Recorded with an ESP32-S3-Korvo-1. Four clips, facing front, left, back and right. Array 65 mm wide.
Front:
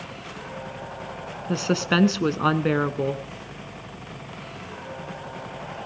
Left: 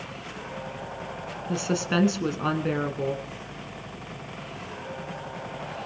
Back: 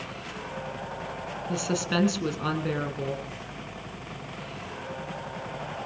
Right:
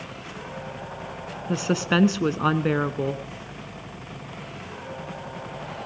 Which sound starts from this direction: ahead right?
A woman speaking, at 1.5 s.